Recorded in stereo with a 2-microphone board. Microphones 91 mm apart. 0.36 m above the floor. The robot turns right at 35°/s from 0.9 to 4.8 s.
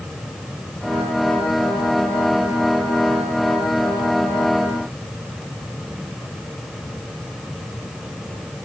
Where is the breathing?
I don't hear breathing.